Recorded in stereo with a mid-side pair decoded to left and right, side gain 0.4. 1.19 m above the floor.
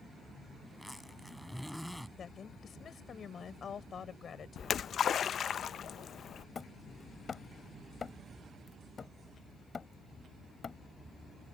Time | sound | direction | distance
0.7 | a zipper | 5° left | ?
2.2 | a woman speaking | 55° left | ?
4.6 | a splash | 60° left | ?
6.5 | hammering | 45° left | ?